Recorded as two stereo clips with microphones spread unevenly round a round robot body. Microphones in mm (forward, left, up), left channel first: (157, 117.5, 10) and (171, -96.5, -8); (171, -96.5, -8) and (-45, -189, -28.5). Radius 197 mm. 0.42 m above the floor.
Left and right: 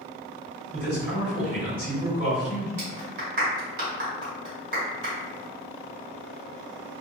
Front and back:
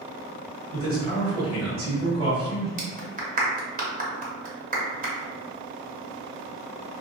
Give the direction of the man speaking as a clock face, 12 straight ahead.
5 o'clock.